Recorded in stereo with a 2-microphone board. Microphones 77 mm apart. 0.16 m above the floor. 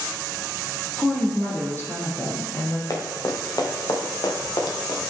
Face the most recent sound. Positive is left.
turn(degrees=65)  # may be behind; listen again after turning